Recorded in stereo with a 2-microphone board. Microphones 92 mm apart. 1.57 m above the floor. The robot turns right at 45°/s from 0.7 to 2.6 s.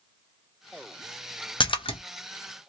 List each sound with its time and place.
1.6 s a splash: 65° left (ahead or behind), 0.6 m; by 2.0 s 80° left, 0.6 m